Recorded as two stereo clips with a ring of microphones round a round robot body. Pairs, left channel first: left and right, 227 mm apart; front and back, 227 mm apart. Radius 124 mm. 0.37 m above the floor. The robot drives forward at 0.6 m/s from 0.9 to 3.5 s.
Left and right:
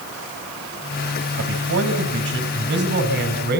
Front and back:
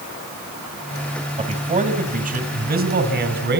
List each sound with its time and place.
1.4 s a man speaking: 120° right, 2.5 m; by 3.6 s 140° right, 3.5 m